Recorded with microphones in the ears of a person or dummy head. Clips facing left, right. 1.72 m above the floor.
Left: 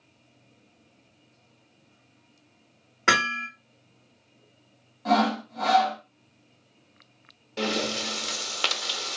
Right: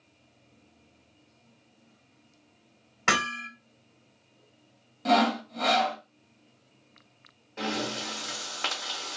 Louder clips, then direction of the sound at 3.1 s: Left 2 dB; 25° left (ahead or behind).